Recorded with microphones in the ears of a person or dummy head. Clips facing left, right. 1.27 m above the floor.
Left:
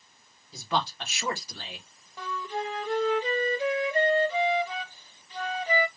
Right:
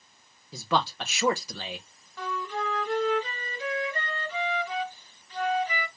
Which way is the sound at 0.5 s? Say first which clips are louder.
Right 3 dB; 55° right (ahead or behind).